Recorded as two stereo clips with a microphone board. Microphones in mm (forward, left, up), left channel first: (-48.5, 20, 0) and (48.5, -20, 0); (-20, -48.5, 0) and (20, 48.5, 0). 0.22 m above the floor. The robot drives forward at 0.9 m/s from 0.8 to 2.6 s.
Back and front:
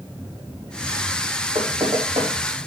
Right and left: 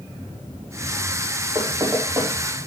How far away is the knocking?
About 7 m.